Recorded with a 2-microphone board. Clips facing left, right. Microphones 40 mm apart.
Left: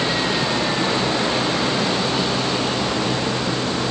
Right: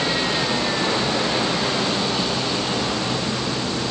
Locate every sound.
Only background noise.